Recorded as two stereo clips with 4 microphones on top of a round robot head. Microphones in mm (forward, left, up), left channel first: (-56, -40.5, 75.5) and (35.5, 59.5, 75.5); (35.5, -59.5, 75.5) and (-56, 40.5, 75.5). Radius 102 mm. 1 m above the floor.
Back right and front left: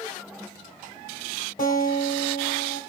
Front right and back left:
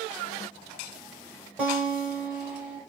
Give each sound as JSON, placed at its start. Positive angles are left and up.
{"t": 1.6, "sound": "a guitar", "azimuth_deg": -150, "distance_m": 1.3}